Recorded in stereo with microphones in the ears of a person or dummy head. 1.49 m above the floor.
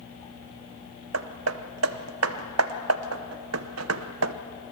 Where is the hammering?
85° right, 0.9 m.